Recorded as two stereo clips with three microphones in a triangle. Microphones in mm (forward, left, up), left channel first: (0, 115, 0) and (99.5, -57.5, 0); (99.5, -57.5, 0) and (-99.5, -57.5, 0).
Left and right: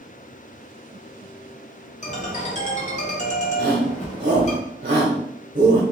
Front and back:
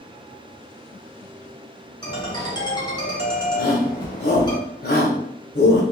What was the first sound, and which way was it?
A ringtone, 65° left.